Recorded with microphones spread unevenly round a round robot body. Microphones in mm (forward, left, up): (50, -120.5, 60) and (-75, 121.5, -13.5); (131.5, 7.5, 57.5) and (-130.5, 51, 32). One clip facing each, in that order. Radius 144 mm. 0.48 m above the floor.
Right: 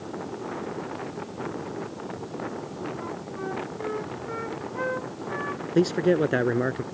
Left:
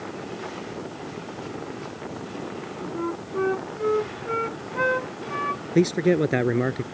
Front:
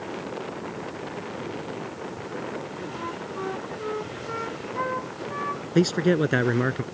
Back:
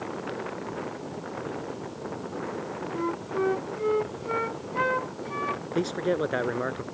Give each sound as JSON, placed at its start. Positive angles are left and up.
{"t": 2.9, "sound": "a flute", "azimuth_deg": 130}
{"t": 5.8, "sound": "a man speaking", "azimuth_deg": 40}